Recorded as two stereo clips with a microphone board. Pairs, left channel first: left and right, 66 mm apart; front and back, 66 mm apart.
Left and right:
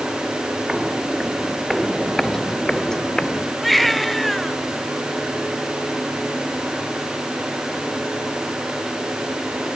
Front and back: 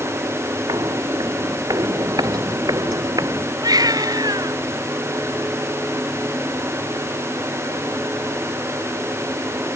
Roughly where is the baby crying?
Behind.